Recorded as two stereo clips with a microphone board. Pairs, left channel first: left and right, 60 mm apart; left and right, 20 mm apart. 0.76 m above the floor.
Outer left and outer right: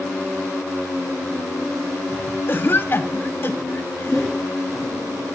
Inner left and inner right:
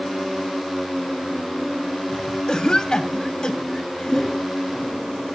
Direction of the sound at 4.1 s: 5° right (ahead or behind).